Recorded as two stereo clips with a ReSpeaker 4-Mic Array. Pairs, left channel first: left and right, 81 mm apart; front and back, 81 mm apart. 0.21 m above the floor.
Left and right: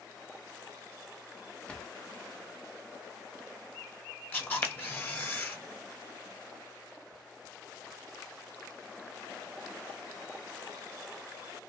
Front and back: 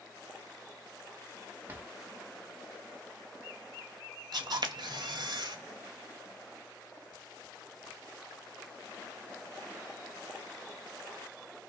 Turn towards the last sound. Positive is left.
turn(degrees=155)